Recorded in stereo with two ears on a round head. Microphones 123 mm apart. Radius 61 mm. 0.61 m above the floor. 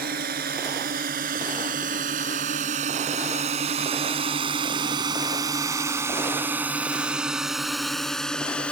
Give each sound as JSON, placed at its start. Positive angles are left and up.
{"t": 0.0, "sound": "a drone", "side_deg": -80}